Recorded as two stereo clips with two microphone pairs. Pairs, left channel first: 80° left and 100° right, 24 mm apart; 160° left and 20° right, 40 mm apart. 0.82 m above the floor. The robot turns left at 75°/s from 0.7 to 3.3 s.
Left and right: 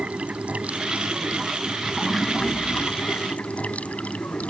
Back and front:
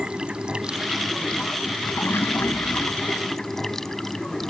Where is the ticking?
No ticking in this recording.